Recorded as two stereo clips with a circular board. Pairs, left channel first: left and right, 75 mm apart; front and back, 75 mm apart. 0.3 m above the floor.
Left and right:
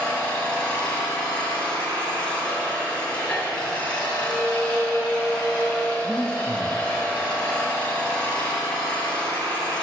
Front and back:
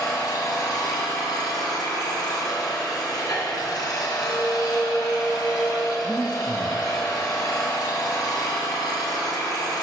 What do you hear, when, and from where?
0.0 s an engine running: 20° left, 1.8 m
4.2 s a violin: 15° left, 3 m
6.0 s breathing: 80° right, 0.9 m